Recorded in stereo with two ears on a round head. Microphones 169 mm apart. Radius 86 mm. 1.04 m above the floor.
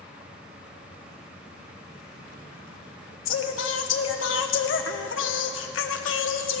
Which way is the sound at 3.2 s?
70° left (ahead or behind).